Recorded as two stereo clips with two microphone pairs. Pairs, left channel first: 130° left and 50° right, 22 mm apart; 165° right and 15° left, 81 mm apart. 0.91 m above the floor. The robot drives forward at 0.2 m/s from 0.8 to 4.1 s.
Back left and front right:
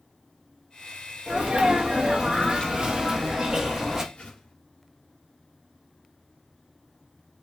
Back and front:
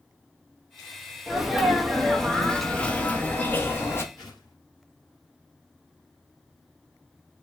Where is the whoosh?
170° left, 3 m.